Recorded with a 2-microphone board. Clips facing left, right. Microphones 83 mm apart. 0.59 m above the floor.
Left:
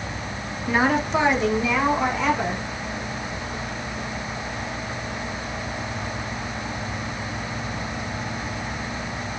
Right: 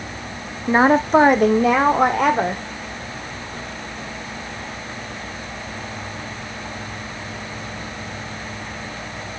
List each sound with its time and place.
0.7 s a woman speaking: 25° right (ahead or behind), 0.7 m; by 2.6 s 55° right (ahead or behind), 1.8 m